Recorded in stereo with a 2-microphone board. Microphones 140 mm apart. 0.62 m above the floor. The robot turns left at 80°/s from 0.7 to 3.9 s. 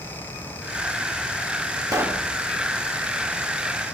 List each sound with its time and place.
1.9 s a pop: 155° right, 1.0 m; by 2.3 s 175° left, 1.0 m